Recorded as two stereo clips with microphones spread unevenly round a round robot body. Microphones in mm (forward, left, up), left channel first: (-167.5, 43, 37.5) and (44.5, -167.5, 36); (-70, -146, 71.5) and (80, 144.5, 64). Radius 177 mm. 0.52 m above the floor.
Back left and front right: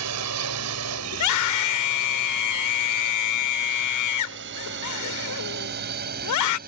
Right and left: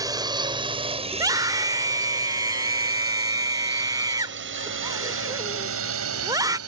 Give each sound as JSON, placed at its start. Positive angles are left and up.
{"t": 0.0, "sound": "a drone", "azimuth_deg": -15}
{"t": 1.1, "sound": "a scream", "azimuth_deg": 140}